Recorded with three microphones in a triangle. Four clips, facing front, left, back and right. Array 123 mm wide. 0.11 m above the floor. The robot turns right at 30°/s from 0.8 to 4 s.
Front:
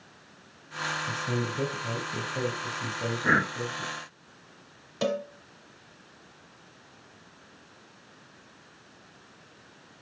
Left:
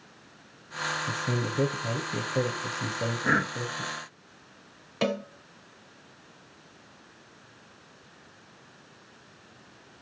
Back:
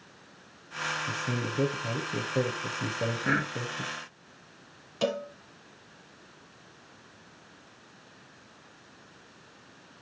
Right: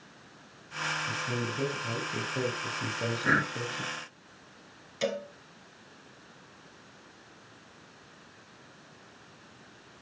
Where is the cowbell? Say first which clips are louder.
Left 3 dB, front 1 dB; 80° left, 1.3 m.